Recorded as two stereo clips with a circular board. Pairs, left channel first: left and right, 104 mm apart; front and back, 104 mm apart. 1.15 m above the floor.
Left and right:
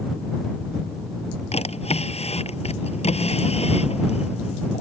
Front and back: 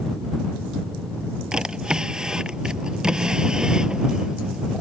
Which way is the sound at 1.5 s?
95° left.